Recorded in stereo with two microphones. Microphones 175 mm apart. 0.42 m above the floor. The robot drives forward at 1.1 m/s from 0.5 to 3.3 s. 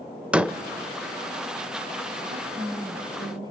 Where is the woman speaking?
40° right (ahead or behind), 2.5 m; by 3.5 s 30° right (ahead or behind), 3 m.